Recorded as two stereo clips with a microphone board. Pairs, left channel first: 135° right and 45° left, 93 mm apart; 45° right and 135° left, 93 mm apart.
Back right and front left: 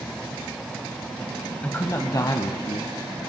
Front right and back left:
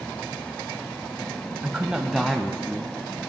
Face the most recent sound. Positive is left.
turn(degrees=-120)